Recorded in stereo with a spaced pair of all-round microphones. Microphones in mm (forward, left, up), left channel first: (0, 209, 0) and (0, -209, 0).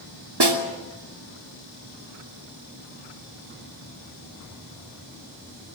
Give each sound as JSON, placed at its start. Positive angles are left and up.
{"t": 0.4, "sound": "a snare drum", "side_deg": -60, "distance_m": 2.5}